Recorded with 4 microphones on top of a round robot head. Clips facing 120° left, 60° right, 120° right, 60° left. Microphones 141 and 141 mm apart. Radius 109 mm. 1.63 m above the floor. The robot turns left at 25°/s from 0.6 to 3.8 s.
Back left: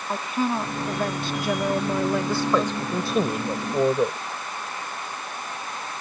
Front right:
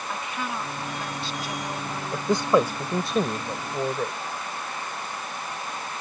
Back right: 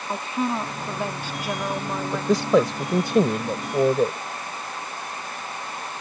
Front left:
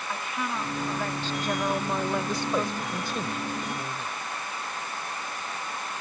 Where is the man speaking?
125° right; by 4.2 s 170° right.